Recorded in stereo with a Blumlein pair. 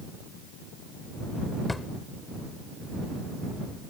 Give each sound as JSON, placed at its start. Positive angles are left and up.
{"t": 1.7, "sound": "a drawer", "azimuth_deg": 10}